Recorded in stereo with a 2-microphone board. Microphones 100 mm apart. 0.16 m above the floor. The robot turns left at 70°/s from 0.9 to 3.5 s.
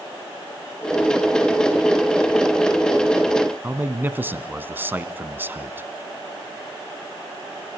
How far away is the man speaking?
About 1.2 m.